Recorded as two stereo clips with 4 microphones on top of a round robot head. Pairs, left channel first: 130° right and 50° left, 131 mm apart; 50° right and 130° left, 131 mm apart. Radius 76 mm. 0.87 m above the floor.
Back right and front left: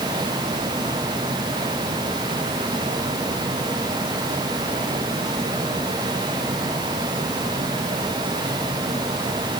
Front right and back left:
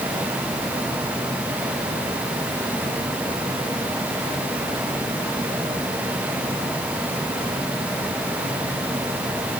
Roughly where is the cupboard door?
No cupboard door in this recording.